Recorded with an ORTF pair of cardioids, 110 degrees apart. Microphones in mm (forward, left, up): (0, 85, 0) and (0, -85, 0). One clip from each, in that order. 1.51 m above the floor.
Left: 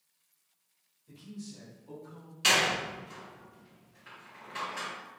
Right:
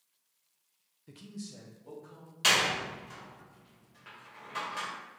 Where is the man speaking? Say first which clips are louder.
Right 1 dB; 55° right, 0.7 m; by 2.3 s 60° right, 2.0 m.